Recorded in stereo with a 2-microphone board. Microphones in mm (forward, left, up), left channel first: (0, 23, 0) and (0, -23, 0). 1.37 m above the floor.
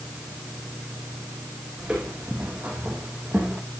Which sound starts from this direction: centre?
Footsteps, at 1.8 s.